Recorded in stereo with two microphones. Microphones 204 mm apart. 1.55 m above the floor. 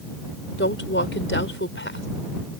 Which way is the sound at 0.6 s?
70° left (ahead or behind).